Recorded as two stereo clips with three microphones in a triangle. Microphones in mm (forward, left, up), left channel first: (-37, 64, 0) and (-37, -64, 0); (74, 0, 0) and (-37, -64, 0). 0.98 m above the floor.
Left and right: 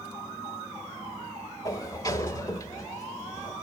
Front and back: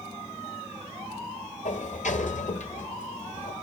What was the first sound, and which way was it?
A sliding door, 30° left.